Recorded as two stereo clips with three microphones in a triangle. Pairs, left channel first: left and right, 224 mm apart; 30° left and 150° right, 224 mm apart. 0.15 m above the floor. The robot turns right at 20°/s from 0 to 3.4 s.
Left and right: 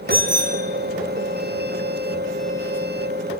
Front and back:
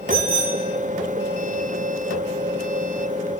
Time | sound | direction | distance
0.1 | a bicycle bell | 10° left | 4 m